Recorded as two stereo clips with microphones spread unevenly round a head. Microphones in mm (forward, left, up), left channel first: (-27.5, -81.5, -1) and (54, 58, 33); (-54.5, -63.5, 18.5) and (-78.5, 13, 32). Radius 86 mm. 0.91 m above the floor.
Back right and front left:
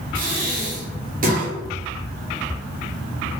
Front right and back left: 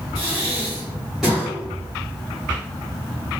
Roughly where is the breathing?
Ahead.